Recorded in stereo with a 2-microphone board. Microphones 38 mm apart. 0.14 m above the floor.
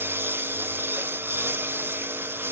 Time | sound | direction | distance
0.0 | a lawn mower | 85° right | ?